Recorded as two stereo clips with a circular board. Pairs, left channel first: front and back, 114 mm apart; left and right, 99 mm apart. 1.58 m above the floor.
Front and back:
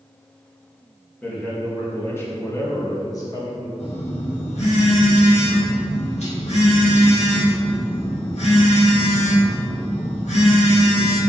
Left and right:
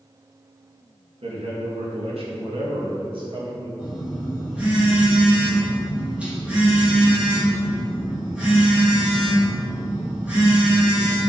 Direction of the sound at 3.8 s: 15° right.